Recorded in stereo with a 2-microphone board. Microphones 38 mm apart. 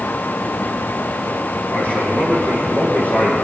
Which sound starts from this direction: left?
A man speaking, at 1.7 s.